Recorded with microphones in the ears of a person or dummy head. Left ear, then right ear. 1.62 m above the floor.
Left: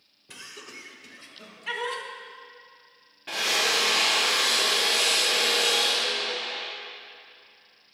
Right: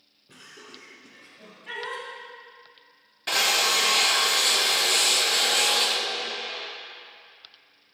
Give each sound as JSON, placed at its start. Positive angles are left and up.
{"t": 0.3, "sound": "laughter", "side_deg": 50, "distance_m": 2.0}
{"t": 3.3, "sound": "a drill", "side_deg": -50, "distance_m": 1.2}